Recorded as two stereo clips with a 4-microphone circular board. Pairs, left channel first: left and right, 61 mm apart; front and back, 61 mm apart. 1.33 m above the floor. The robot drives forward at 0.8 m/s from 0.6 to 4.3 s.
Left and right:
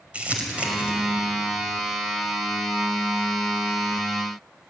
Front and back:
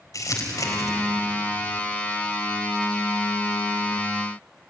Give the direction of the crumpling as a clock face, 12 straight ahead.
1 o'clock.